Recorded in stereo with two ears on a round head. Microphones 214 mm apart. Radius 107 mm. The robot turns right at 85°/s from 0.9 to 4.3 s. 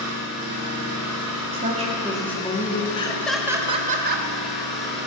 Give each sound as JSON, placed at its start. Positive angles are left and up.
{"t": 0.0, "sound": "an engine running", "azimuth_deg": -110, "distance_m": 3.0}
{"t": 1.5, "sound": "a woman speaking", "azimuth_deg": -55, "distance_m": 1.5}
{"t": 2.9, "sound": "laughter", "azimuth_deg": 145, "distance_m": 0.8}